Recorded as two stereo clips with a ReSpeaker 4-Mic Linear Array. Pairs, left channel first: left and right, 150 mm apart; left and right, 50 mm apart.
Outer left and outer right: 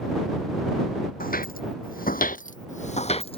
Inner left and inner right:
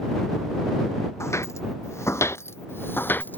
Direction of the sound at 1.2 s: 70° left (ahead or behind).